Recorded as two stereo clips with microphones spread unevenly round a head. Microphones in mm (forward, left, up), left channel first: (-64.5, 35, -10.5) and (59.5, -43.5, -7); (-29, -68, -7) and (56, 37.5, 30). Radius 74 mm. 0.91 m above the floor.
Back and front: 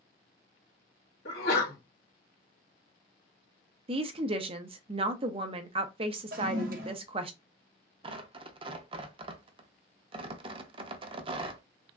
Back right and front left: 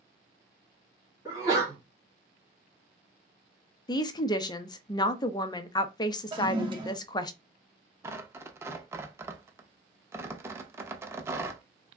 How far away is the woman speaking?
About 0.6 m.